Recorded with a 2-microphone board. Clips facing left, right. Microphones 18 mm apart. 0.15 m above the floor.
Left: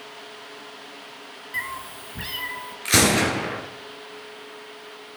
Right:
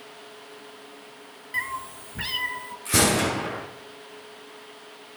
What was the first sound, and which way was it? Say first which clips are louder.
A cat meowing: right 1 dB; 5° right (ahead or behind).